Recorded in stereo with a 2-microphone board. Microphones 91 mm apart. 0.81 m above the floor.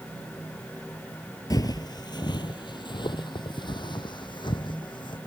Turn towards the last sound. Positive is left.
turn(degrees=60)  # may be behind; listen again after turning